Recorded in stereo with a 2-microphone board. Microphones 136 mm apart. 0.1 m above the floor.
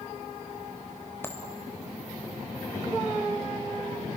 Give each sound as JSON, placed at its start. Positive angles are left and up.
{"t": 1.2, "sound": "a dropped coin", "side_deg": 15, "distance_m": 2.5}